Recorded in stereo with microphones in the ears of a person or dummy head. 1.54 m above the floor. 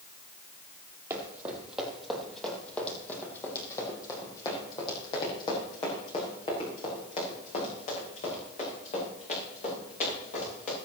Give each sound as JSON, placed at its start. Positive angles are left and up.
{"t": 1.1, "sound": "running footsteps", "side_deg": -15, "distance_m": 3.0}